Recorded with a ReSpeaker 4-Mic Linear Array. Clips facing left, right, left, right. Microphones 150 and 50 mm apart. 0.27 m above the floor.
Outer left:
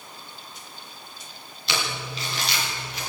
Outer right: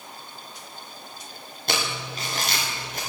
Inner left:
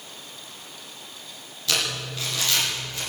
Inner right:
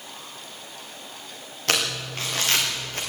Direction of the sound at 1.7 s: 50° right (ahead or behind).